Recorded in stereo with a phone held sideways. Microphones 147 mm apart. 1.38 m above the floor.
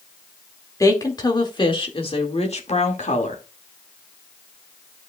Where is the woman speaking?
25° left (ahead or behind), 2 m; by 3.4 s 60° left (ahead or behind), 2 m.